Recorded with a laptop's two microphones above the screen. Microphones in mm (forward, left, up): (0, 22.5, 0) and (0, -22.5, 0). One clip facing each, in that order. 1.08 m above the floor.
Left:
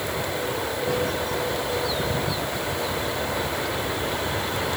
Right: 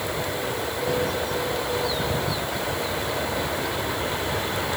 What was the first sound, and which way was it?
Only background noise.